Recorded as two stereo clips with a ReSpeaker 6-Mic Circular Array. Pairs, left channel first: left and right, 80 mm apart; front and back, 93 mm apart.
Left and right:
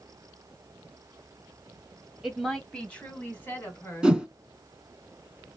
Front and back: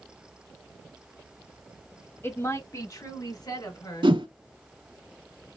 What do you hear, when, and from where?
2.2 s a woman speaking: 10° right, 1.2 m; by 4.2 s 35° left, 2.5 m
4.0 s a whoosh: 165° right, 0.8 m